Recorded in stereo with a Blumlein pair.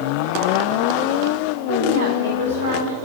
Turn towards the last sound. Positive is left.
turn(degrees=-70)